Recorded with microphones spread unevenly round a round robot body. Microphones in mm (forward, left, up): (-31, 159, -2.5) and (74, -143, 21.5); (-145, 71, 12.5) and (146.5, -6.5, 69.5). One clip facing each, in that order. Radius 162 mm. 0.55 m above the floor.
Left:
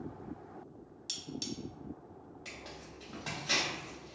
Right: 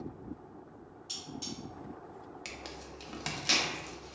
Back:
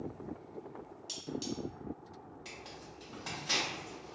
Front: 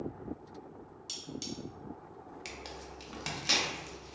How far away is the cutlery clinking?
About 0.8 m.